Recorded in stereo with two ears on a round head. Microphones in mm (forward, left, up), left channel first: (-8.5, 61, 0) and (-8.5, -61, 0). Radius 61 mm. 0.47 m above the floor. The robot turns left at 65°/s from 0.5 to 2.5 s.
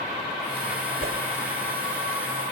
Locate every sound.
1.0 s a whoosh: 70° right (ahead or behind), 3 m